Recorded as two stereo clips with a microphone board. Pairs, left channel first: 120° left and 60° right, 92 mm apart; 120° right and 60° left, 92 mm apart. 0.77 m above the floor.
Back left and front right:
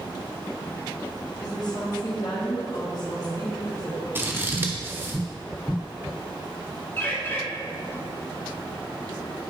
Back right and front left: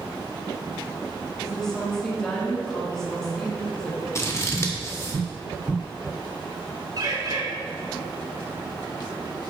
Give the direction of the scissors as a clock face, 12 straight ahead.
3 o'clock.